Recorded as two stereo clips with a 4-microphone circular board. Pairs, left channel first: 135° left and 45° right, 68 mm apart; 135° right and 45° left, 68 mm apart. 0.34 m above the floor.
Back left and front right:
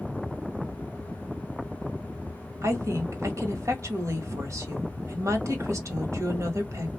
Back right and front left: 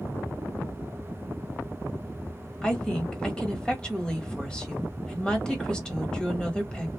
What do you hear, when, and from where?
2.6 s a woman speaking: 60° right, 1.4 m